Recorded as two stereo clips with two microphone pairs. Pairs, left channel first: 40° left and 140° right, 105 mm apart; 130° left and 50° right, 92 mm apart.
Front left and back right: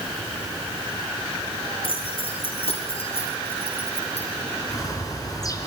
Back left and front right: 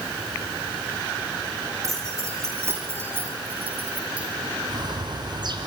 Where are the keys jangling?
10° left, 8 m; by 4.3 s 30° left, 7 m.